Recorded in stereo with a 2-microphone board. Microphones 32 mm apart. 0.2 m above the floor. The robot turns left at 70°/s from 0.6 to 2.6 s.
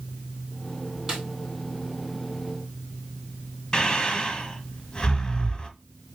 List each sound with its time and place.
1.1 s a snare drum: 20° right (ahead or behind), 1.4 m; by 1.2 s 30° right (ahead or behind), 1.4 m
3.7 s breathing: 25° left (ahead or behind), 0.7 m